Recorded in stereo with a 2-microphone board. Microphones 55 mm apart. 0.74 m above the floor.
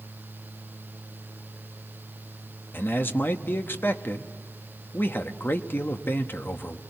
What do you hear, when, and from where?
2.7 s a man speaking: 40° left (ahead or behind), 1.0 m